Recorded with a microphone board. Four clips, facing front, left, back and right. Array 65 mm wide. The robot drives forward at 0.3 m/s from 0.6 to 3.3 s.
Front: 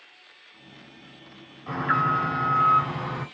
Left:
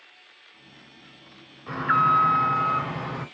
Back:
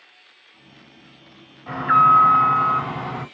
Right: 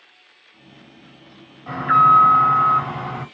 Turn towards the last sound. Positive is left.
turn(degrees=-125)